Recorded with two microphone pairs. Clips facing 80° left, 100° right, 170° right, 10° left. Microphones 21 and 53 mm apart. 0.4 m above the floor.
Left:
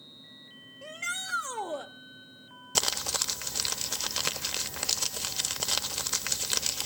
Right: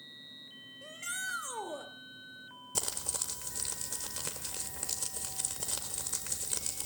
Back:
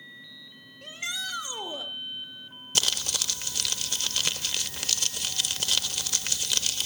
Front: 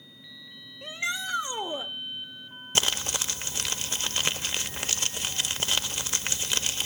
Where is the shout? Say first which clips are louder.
Left 5 dB, front 4 dB; 40° left, 1.3 m.